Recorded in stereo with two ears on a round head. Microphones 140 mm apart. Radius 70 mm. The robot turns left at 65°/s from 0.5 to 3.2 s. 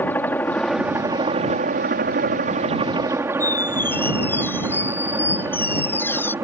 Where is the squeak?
15° left (ahead or behind).